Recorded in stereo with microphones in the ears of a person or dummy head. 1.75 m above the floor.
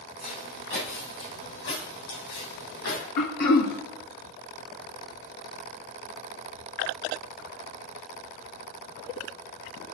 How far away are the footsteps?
About 4 m.